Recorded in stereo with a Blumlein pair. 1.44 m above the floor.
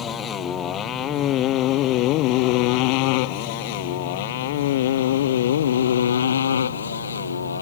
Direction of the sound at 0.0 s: 25° left.